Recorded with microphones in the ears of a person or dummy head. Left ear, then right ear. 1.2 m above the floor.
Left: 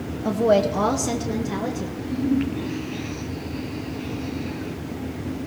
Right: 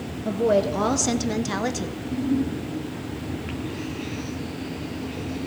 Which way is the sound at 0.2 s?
30° left (ahead or behind).